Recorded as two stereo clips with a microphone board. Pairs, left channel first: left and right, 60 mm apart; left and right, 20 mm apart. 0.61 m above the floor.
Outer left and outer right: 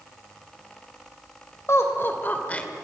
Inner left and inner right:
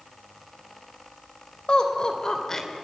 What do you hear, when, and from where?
1.7 s laughter: 50° left (ahead or behind), 3 m; by 2.7 s 15° left (ahead or behind), 2 m